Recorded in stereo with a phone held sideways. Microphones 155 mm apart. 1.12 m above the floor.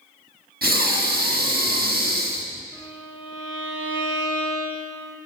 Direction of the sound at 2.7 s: 35° left (ahead or behind).